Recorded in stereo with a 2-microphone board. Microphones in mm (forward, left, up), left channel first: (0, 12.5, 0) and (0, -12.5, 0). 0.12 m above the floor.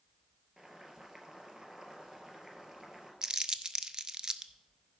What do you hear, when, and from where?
0.6 s boiling: 25° right (ahead or behind), 2 m
3.2 s crumpling: 30° right (ahead or behind), 0.5 m